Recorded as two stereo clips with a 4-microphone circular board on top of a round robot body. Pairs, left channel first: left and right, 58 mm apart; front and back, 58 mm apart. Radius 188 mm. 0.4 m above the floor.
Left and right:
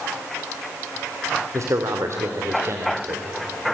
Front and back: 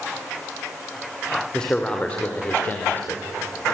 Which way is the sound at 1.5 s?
75° right.